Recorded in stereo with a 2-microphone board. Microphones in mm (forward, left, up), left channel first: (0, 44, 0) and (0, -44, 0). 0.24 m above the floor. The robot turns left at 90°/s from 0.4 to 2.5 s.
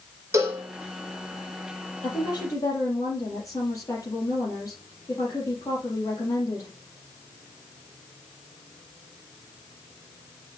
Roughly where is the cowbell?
Right.